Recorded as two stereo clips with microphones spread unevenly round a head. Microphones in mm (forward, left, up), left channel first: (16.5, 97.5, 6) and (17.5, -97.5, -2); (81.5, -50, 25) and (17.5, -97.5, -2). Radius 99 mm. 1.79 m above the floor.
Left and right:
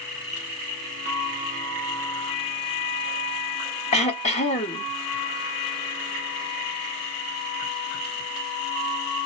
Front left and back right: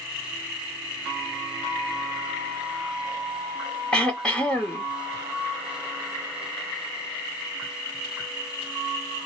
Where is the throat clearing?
80° left, 0.9 m.